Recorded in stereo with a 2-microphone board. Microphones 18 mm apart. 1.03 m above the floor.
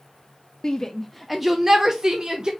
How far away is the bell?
No bell in this recording.